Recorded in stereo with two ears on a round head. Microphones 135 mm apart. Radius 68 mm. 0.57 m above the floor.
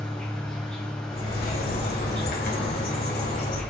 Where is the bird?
65° left (ahead or behind), 3 m.